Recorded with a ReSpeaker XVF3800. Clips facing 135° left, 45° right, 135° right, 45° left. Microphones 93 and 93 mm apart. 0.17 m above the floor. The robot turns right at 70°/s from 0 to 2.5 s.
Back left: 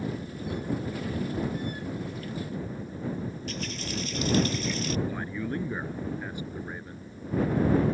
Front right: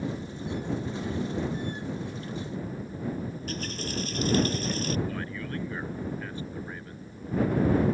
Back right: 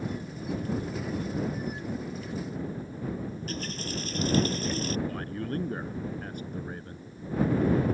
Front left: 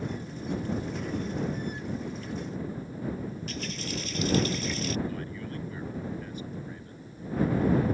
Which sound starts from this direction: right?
A running tap, at 3.3 s.